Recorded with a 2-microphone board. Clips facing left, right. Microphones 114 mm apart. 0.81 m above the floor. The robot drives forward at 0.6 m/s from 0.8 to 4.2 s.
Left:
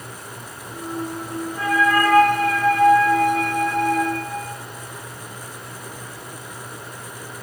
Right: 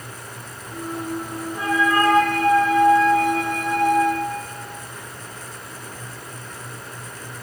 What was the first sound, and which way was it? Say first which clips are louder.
A flute: left 1 dB; 20° right (ahead or behind).